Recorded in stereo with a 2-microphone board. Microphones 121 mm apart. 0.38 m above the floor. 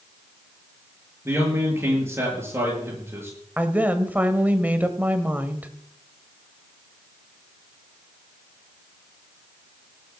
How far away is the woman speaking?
About 1.5 m.